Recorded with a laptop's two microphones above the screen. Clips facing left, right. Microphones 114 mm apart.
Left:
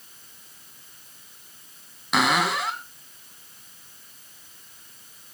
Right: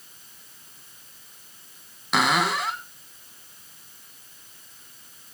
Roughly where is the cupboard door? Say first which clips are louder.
Even; centre.